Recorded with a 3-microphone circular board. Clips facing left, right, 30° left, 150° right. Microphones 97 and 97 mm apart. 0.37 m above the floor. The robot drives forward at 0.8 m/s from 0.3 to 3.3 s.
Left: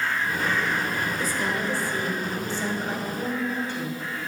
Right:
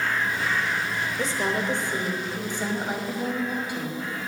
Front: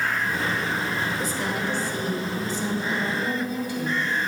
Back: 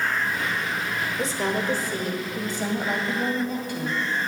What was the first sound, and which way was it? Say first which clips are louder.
A woman speaking: right 1 dB, back 2 dB; 115° right.